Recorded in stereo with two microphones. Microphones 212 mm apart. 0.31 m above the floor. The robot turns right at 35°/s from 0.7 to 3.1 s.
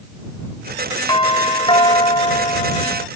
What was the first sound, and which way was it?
A doorbell, 20° left (ahead or behind).